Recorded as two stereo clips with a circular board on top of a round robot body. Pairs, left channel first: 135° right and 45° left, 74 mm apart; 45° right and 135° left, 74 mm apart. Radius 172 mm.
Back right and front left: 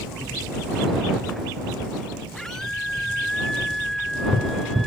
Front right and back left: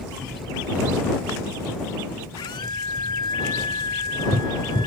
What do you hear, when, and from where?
2.4 s a scream: 50° right